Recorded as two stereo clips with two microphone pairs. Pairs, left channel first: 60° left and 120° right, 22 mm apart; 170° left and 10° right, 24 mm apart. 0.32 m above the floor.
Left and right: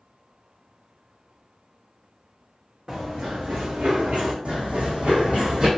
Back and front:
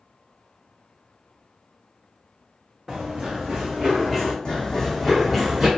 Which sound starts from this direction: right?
Running footsteps, at 2.9 s.